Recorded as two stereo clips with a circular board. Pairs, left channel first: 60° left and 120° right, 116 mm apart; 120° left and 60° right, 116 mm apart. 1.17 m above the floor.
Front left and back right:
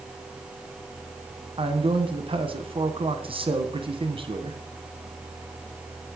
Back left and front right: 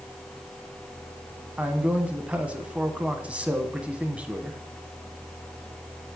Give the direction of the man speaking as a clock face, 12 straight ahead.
5 o'clock.